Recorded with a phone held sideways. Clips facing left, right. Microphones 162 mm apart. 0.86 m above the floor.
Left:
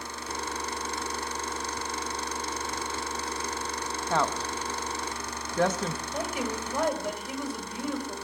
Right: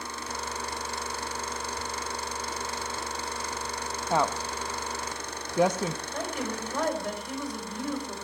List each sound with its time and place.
4.1 s a woman speaking: 15° right (ahead or behind), 0.6 m
6.1 s a woman speaking: 5° left (ahead or behind), 4.5 m